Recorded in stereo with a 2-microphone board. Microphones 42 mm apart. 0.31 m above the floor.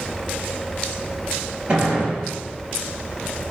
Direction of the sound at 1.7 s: 25° right (ahead or behind).